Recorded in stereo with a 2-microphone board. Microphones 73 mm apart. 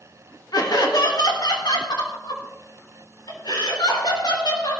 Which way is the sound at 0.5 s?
65° left (ahead or behind).